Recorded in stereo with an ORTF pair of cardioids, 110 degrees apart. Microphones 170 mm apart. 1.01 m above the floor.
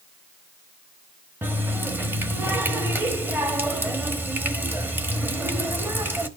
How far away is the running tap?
About 1.1 m.